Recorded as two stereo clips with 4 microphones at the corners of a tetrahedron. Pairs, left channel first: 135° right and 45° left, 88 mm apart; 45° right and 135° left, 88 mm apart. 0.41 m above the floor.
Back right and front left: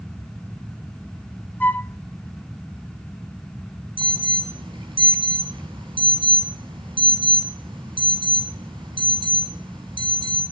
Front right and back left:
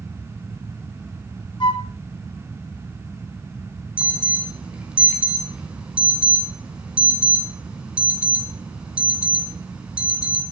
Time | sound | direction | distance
1.6 | a flute | 65° right | 0.5 m
4.0 | an alarm | 60° left | 3.5 m